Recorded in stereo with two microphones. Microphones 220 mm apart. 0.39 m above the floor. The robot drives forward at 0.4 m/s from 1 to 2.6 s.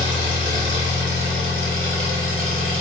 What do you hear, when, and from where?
0.0 s an engine running: 55° right (ahead or behind), 1.4 m; by 2.8 s 80° right, 1.1 m